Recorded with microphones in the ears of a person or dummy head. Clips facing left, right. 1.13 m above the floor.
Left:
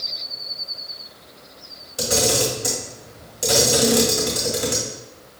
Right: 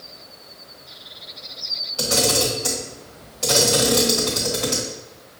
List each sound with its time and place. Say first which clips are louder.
2.0 s a camera shutter: left 1 dB; 20° left (ahead or behind), 1.3 m